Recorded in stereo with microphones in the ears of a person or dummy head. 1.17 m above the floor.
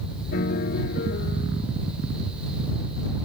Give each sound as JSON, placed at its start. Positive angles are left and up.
{"t": 0.3, "sound": "a piano", "side_deg": 50}